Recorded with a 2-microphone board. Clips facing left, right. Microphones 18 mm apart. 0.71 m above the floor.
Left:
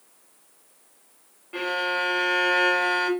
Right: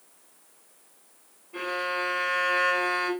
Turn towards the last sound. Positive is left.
turn(degrees=80)